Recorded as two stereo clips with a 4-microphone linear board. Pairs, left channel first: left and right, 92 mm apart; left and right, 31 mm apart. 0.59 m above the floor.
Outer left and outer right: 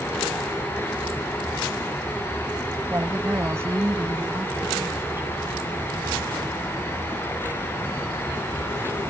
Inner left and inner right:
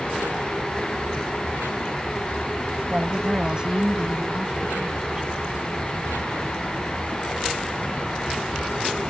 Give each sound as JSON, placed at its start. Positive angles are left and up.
{"t": 2.9, "sound": "a woman speaking", "side_deg": -30}